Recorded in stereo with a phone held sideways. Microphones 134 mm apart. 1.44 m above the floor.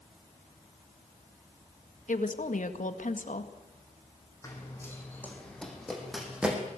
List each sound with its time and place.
2.1 s a woman speaking: 85° left, 1.9 m
4.4 s running footsteps: 25° left (ahead or behind), 5 m; by 6.6 s 10° right (ahead or behind), 5 m